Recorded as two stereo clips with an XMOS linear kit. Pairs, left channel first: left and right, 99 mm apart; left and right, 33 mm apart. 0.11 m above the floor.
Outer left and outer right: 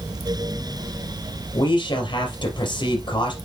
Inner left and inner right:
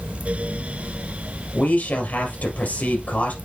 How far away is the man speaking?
About 3 m.